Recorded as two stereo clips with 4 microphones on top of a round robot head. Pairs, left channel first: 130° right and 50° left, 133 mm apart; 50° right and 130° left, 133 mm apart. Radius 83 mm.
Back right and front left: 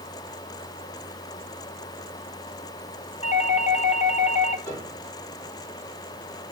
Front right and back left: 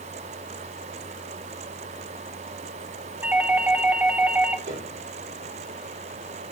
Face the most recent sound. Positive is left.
turn(degrees=155)